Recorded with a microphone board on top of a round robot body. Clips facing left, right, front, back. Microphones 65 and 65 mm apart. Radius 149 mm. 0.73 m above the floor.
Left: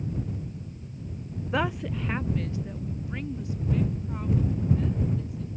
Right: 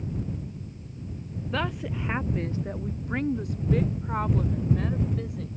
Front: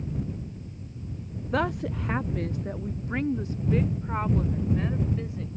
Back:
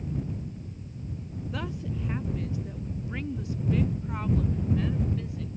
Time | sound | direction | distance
1.5 | a woman speaking | 20° left | ?